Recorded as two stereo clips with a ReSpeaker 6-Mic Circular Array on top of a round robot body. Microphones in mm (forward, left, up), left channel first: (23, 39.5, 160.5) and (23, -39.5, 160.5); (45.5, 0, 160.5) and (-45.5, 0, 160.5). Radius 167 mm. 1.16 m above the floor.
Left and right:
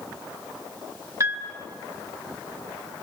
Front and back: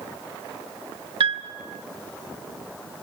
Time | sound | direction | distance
1.2 | a piano | 145° right | 1.7 m